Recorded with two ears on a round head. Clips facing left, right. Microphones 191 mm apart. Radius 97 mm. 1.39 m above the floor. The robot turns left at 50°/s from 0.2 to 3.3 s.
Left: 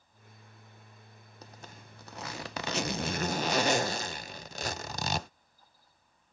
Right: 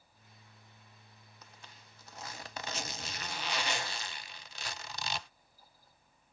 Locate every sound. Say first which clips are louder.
1.4 s a zipper: left 9 dB; 140° left; by 5.3 s 45° left